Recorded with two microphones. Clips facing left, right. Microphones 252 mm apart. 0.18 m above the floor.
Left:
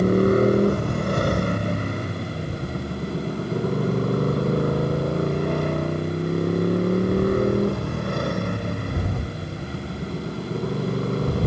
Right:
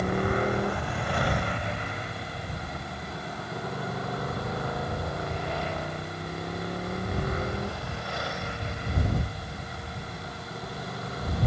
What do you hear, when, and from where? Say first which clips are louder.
0.0 s a motorcycle: left 10 dB; 45° left (ahead or behind); by 11.5 s 55° left (ahead or behind)